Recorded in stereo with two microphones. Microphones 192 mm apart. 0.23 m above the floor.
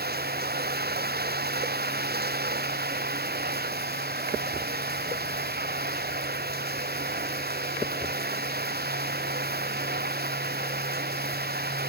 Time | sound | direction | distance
0.0 | running water | 55° right (ahead or behind) | ?